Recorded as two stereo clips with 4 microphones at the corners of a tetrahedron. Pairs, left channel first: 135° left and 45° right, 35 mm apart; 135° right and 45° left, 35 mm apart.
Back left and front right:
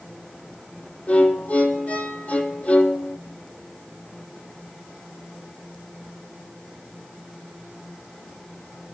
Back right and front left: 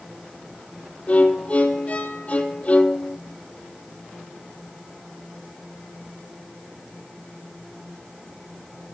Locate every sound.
1.1 s a violin: straight behind, 0.8 m